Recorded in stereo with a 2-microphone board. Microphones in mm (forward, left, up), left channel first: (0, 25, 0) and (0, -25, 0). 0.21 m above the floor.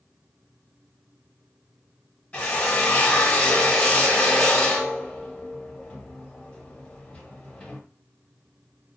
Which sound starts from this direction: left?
A drill, at 2.3 s.